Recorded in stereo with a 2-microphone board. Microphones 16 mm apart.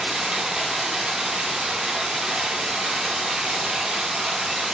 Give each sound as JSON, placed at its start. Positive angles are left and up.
{"t": 0.0, "sound": "running water", "side_deg": -85, "distance_m": 0.9}